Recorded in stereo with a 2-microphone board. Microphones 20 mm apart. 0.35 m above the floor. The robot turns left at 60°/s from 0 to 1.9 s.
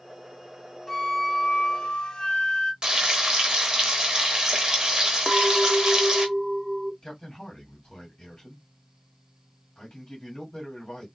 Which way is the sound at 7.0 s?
40° left (ahead or behind).